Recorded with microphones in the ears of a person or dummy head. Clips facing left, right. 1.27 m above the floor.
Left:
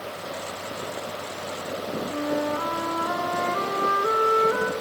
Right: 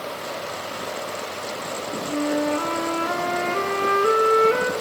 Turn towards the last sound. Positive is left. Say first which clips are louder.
# right 5 dB
turn(degrees=-35)  # may be behind; listen again after turning